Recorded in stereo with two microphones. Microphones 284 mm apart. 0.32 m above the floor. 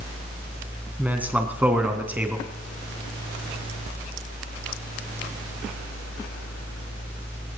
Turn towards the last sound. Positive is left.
turn(degrees=-5)  # may be behind; listen again after turning